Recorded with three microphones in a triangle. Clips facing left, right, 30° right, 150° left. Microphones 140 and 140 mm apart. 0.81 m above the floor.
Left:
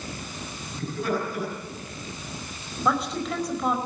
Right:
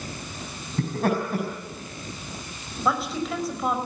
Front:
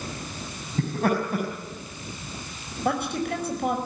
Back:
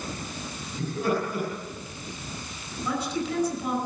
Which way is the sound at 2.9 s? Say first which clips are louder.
Even, front 3 dB; straight ahead.